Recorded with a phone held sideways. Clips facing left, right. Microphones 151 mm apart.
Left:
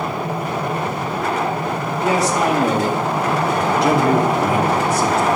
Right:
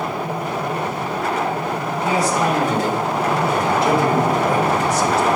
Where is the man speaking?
65° left (ahead or behind), 2.5 m; by 5.4 s 50° left (ahead or behind), 3 m.